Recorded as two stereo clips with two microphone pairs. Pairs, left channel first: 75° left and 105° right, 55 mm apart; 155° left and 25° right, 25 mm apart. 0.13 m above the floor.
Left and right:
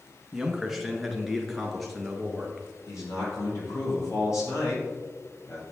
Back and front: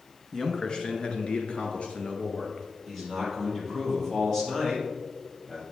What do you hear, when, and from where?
0.3 s a man speaking: straight behind, 1.1 m; by 2.7 s 160° left, 2 m
2.9 s a man speaking: 75° left, 3.5 m